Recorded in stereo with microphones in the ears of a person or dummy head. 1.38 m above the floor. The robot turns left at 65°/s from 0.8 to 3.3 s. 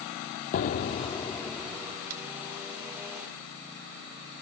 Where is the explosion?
50° left, 1.3 m; by 1.9 s 25° right, 1.3 m.